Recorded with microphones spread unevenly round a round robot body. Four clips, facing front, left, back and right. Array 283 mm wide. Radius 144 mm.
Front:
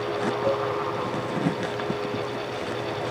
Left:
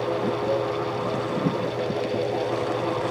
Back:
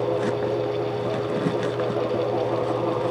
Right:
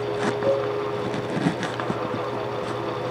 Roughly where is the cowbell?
Ahead right.